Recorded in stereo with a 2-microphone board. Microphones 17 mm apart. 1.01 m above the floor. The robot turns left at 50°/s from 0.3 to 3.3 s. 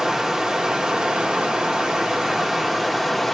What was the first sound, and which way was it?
Running water, 35° right.